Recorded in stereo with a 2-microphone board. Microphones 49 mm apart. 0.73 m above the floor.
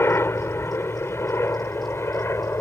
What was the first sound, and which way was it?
A helicopter, 55° left (ahead or behind).